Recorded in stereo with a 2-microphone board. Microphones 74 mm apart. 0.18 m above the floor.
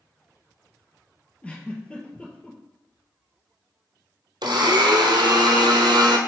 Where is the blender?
75° right (ahead or behind), 1.0 m.